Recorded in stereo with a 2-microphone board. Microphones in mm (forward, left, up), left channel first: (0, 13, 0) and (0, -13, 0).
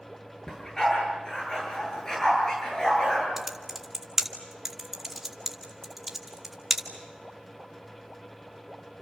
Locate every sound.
0.5 s a dog barking: 20° left (ahead or behind), 9 m
3.4 s typing on a keyboard: 15° right (ahead or behind), 2.5 m